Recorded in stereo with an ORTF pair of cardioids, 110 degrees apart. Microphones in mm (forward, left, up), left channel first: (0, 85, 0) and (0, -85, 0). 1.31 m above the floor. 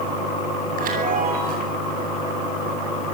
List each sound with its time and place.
0.8 s a chime: 55° right, 9.5 m